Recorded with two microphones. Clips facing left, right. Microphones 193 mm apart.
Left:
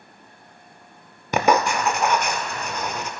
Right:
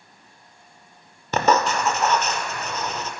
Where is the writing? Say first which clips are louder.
Left 1 dB; 15° left (ahead or behind), 0.6 m.